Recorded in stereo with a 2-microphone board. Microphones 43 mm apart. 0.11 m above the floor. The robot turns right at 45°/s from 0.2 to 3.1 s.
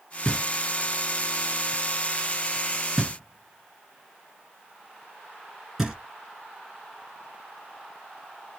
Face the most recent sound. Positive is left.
turn(degrees=-10)  # may be behind; listen again after turning